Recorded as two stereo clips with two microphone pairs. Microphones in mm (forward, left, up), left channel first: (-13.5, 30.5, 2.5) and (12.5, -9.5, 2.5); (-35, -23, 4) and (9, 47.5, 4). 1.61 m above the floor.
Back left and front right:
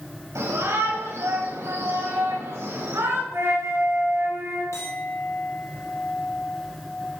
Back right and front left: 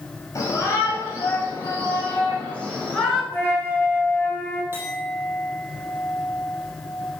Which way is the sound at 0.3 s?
65° right.